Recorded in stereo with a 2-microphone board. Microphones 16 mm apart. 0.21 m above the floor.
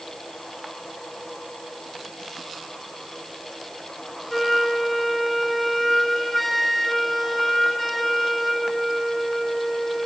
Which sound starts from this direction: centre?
A flute, at 4.3 s.